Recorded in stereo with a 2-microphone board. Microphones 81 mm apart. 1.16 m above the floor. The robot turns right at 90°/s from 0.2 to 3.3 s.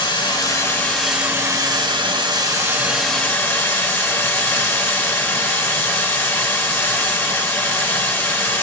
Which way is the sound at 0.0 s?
105° left.